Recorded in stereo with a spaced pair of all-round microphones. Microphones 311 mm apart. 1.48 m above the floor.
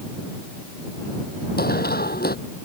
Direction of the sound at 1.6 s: 30° left (ahead or behind).